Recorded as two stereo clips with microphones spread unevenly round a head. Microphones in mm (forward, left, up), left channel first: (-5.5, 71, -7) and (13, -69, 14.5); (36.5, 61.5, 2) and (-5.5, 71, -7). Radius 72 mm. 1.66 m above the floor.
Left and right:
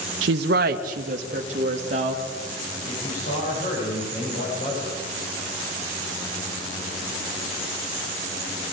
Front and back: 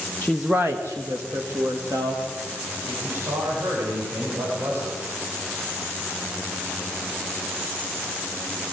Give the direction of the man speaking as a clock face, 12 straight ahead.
7 o'clock.